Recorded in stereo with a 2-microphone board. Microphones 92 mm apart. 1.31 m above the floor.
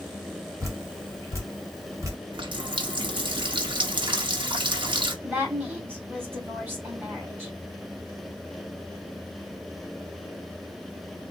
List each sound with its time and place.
0.6 s dripping: 35° right (ahead or behind), 1.6 m
2.3 s a running tap: 55° right (ahead or behind), 0.9 m
5.2 s a woman speaking: 20° right (ahead or behind), 3 m